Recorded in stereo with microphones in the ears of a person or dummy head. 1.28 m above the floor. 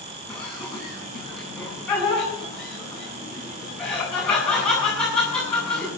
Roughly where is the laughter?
Centre.